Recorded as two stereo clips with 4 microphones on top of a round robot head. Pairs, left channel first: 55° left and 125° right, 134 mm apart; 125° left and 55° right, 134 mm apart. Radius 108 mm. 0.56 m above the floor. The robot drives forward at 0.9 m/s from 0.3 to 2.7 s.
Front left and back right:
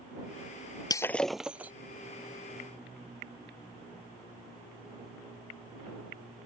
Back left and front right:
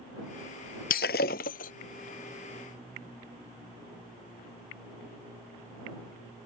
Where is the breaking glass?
115° left; by 1.7 s 155° left.